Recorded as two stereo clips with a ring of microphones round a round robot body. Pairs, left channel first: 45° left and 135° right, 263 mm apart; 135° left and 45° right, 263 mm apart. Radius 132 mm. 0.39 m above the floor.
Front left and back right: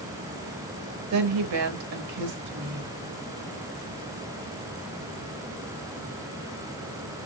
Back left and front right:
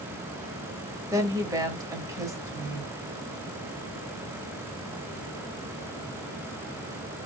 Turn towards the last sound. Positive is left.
turn(degrees=-120)